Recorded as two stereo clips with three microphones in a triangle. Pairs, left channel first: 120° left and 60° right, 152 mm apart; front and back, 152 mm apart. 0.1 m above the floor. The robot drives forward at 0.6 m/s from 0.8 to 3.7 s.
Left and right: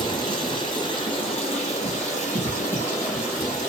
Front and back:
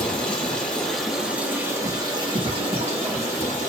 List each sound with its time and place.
0.0 s running water: 80° left, 1.3 m; by 3.7 s 150° left, 2 m